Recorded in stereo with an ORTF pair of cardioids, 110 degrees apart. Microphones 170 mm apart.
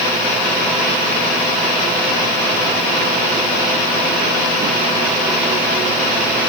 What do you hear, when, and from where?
Only background noise.